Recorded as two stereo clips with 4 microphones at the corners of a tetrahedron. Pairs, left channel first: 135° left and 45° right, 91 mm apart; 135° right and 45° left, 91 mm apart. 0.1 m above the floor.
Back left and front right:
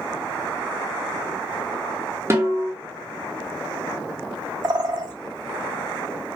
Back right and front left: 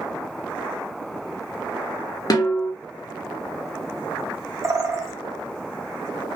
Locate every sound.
2.3 s a snare drum: 100° right, 0.8 m
4.6 s a bird: 10° right, 0.6 m